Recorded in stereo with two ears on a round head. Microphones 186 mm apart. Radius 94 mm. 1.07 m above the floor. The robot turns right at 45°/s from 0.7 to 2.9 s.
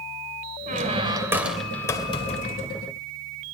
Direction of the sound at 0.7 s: 40° right.